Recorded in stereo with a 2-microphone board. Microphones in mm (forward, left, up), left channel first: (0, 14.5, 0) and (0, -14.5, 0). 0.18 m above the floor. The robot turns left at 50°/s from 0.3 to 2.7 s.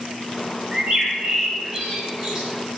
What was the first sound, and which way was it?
A bird, 10° right (ahead or behind).